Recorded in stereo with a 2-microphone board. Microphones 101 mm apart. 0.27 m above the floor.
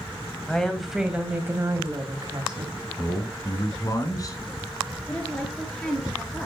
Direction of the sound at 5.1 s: 10° left (ahead or behind).